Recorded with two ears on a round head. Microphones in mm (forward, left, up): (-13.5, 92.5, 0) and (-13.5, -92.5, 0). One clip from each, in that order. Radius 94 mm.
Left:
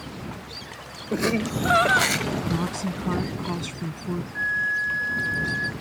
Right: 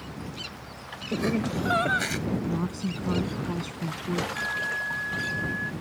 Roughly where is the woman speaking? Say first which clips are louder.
Left 4 dB; left.